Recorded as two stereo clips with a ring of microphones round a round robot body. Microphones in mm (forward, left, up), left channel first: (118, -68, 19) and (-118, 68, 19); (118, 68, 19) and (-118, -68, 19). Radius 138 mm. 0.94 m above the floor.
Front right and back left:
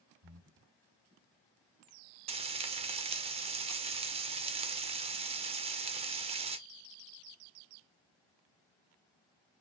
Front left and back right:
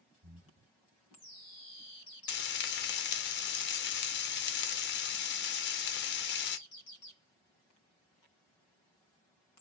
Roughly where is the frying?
Left.